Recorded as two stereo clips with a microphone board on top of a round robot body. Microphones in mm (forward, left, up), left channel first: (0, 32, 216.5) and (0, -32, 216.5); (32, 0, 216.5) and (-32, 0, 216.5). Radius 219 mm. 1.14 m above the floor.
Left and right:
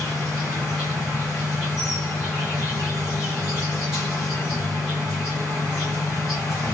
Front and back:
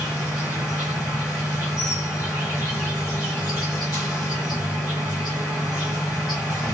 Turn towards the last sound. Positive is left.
turn(degrees=0)